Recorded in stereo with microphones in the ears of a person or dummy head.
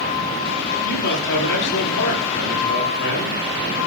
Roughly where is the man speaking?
Left.